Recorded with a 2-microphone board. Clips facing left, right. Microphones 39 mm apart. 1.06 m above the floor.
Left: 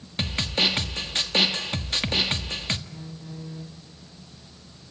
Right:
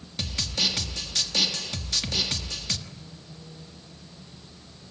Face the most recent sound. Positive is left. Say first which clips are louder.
# left 6 dB
turn(degrees=55)  # may be behind; listen again after turning